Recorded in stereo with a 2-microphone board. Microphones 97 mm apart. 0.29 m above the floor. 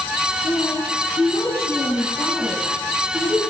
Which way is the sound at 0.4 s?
25° left (ahead or behind).